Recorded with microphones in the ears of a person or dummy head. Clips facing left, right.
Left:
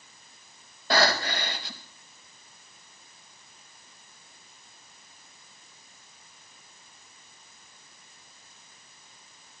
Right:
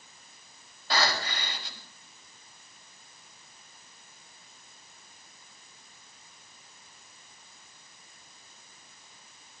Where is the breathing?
40° left (ahead or behind), 4 m.